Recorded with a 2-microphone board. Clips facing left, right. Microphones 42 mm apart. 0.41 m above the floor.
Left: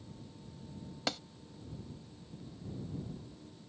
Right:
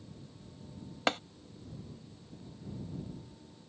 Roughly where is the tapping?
Right.